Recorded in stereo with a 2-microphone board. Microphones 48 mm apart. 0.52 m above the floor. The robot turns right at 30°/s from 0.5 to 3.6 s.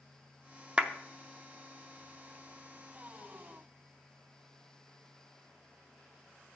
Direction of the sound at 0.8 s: 25° right (ahead or behind).